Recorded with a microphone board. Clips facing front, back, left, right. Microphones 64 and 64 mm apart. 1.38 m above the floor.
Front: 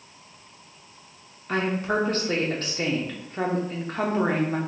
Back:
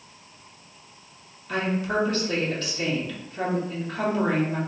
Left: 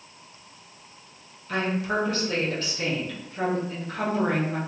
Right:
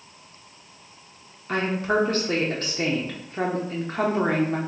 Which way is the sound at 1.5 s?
45° right.